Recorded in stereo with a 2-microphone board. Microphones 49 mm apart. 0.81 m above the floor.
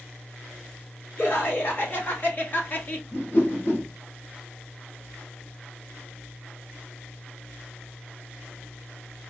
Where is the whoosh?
45° left (ahead or behind), 3 m.